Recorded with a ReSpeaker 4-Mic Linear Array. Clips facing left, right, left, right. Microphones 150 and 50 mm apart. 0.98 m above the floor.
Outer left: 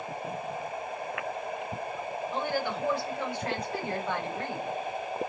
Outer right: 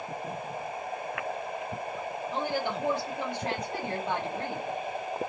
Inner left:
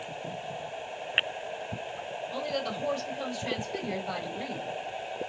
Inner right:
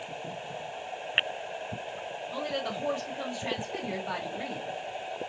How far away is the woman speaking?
About 1.4 m.